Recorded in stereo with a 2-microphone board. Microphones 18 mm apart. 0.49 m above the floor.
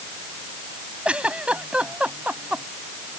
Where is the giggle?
65° right (ahead or behind).